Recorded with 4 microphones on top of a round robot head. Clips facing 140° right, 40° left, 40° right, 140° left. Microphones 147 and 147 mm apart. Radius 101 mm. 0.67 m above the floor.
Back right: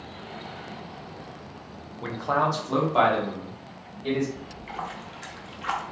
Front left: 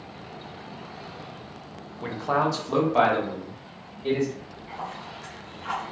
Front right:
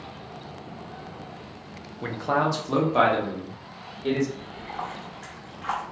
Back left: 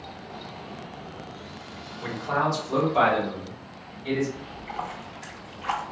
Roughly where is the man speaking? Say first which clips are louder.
Front left 1 dB, front right 2 dB; ahead right.